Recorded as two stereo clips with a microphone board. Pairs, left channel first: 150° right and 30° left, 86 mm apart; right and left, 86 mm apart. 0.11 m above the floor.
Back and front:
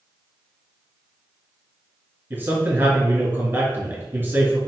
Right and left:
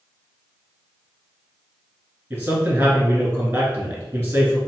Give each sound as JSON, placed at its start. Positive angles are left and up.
{"t": 2.3, "sound": "a man speaking", "azimuth_deg": 50, "distance_m": 1.5}